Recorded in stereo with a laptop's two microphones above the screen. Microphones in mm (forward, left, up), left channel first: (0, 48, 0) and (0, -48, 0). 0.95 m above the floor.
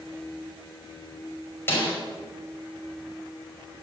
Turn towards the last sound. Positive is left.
turn(degrees=25)  # may be behind; listen again after turning